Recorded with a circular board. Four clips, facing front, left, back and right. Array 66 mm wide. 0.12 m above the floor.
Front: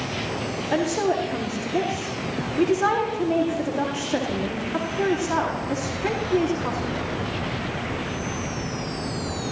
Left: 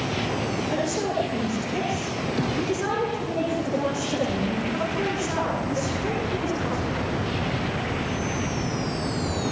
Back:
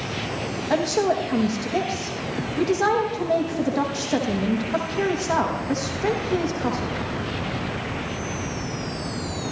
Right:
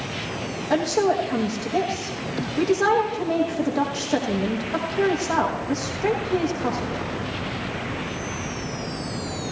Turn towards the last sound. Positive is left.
turn(degrees=-140)